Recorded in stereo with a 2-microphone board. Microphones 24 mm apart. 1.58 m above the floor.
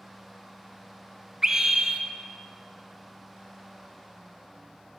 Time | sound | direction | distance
1.4 | a scream | 20° right (ahead or behind) | 0.7 m